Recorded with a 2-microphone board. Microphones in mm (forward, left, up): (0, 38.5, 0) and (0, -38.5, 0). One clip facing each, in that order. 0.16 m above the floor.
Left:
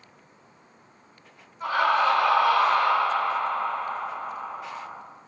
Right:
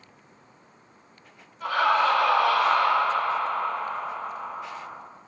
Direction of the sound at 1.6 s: 20° left (ahead or behind).